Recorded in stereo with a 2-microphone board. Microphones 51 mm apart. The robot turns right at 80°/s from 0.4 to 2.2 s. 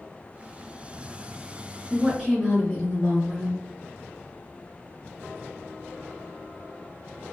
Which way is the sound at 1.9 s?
15° right (ahead or behind).